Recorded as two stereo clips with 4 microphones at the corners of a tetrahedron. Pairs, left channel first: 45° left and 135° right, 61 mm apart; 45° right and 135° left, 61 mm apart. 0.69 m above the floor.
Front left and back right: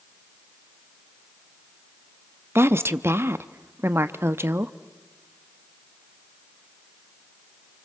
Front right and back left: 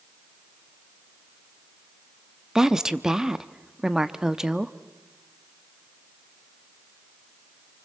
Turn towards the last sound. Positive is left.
turn(degrees=-150)